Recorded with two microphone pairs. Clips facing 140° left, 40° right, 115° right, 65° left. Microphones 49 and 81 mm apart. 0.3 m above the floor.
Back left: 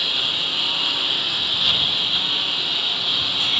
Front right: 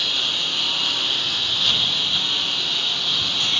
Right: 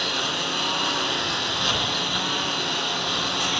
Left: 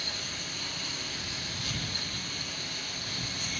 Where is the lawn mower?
135° right.